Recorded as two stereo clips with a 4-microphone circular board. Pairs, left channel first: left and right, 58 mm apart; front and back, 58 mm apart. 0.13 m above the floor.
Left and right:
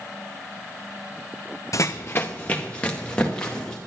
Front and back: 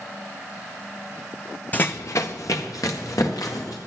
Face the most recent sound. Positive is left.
turn(degrees=15)